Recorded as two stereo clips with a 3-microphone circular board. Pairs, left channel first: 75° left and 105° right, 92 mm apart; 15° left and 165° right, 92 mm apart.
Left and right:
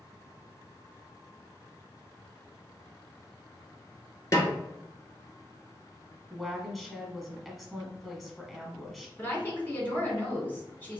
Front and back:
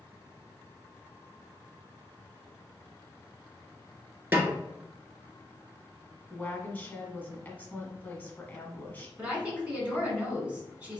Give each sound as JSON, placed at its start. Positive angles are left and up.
{"t": 4.3, "sound": "a snare drum", "azimuth_deg": 125, "distance_m": 1.3}
{"t": 6.3, "sound": "a woman speaking", "azimuth_deg": -10, "distance_m": 1.0}
{"t": 9.2, "sound": "a woman speaking", "azimuth_deg": 125, "distance_m": 1.9}